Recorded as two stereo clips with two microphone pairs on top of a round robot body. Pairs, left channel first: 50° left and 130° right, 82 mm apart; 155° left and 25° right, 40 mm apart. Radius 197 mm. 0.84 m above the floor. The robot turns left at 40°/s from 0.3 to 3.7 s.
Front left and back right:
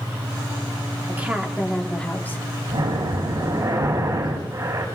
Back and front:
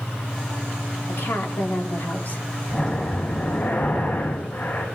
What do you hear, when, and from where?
1.1 s a woman speaking: 165° left, 2 m; by 2.4 s 115° left, 2 m
2.7 s breathing: 135° right, 5.5 m; by 4.8 s 175° right, 5.5 m